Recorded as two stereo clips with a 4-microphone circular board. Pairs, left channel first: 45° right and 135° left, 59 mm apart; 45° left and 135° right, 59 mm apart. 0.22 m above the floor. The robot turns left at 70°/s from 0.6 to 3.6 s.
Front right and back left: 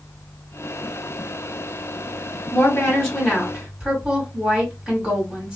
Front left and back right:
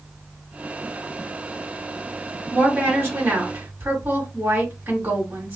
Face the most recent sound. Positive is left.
turn(degrees=-165)